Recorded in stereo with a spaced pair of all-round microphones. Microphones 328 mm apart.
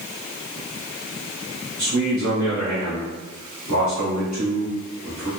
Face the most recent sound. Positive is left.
turn(degrees=-60)  # may be behind; listen again after turning